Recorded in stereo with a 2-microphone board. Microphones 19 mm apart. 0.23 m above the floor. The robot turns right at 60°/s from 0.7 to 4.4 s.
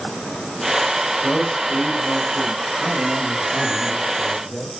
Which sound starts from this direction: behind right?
A man speaking, at 2.8 s.